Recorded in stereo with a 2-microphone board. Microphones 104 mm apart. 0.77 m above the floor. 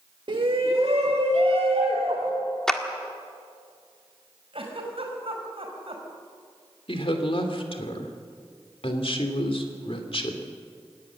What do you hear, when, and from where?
0.3 s a shout: 50° right (ahead or behind), 1.4 m; by 2.3 s 70° right (ahead or behind), 3.5 m
2.7 s a clap: 5° left (ahead or behind), 1.6 m
4.5 s a giggle: 60° right (ahead or behind), 5 m
6.9 s a woman speaking: 60° left (ahead or behind), 2.5 m